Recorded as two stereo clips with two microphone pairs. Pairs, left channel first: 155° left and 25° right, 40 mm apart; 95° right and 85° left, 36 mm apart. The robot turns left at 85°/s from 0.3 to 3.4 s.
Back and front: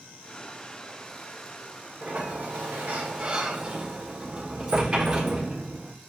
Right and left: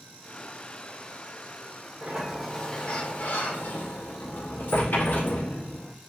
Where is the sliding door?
35° left, 1.4 m; by 6.0 s 80° right, 1.4 m.